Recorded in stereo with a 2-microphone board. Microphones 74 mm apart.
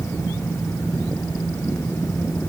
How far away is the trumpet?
No trumpet in this recording.